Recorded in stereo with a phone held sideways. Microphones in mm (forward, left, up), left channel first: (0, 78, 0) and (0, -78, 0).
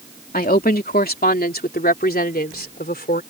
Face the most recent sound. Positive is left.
turn(degrees=80)